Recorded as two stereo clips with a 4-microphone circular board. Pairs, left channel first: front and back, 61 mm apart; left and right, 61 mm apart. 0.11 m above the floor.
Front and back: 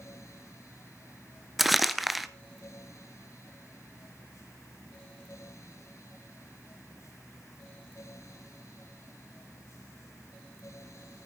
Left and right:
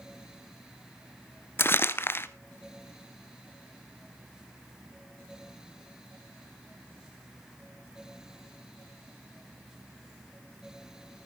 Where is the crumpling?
90° left, 0.9 m.